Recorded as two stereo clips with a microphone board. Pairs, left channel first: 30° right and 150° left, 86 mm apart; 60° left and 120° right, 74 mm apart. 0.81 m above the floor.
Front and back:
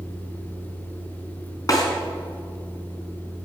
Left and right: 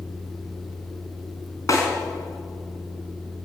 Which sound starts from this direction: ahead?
A snare drum, at 1.7 s.